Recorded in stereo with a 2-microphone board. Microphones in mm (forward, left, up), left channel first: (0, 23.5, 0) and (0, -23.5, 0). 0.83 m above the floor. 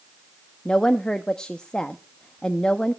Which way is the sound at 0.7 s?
20° left (ahead or behind).